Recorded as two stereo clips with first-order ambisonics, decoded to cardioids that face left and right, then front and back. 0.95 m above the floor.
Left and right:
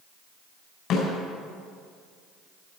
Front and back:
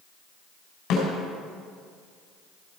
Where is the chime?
I don't hear a chime.